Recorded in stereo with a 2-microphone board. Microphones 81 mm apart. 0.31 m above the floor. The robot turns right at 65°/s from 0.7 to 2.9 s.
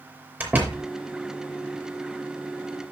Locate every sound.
0.4 s a door slam: 20° right (ahead or behind), 5 m; by 0.8 s 10° right (ahead or behind), 5 m